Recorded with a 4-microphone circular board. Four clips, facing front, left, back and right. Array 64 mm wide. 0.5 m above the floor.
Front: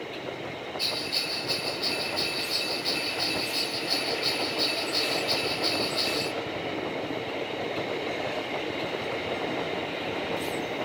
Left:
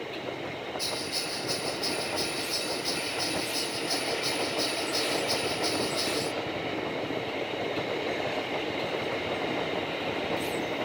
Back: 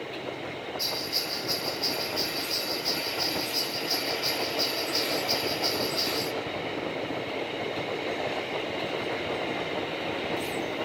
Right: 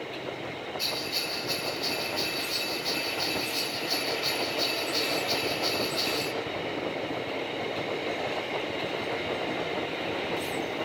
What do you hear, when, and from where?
0.8 s a bell: 35° right, 0.6 m